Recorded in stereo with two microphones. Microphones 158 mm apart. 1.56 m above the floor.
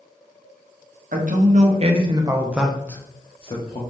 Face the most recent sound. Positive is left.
turn(degrees=45)  # may be behind; listen again after turning